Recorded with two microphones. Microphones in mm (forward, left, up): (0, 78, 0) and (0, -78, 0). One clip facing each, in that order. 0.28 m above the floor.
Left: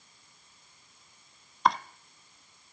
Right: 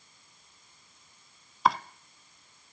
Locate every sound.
1.6 s chopping: centre (ahead or behind), 0.6 m